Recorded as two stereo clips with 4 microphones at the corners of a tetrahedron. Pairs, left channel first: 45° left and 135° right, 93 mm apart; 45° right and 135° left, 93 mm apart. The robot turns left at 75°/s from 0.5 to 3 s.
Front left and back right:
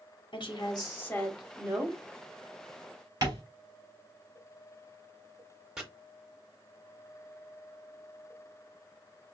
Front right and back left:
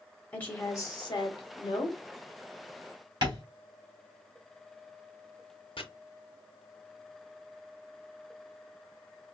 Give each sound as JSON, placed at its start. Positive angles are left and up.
{"t": 0.3, "sound": "a woman speaking", "azimuth_deg": 25, "distance_m": 1.7}
{"t": 3.2, "sound": "tapping", "azimuth_deg": 175, "distance_m": 3.0}
{"t": 5.8, "sound": "chopping", "azimuth_deg": -50, "distance_m": 1.1}